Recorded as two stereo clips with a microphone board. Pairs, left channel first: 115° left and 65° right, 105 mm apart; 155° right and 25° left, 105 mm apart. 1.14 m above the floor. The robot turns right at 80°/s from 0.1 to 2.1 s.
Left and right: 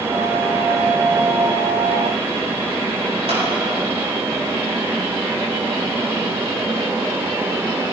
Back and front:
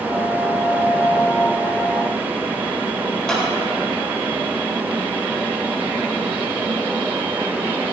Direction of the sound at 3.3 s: 75° right.